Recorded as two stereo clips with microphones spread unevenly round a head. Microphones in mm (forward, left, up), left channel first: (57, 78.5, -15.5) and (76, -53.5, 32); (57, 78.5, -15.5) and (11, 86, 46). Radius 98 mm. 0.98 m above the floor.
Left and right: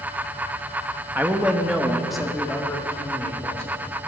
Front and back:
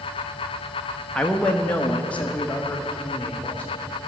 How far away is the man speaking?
About 1.5 m.